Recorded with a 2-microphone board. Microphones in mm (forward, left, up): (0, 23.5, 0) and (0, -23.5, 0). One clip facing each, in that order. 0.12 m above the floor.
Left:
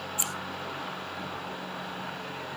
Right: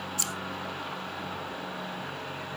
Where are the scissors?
20° left (ahead or behind), 1.5 m.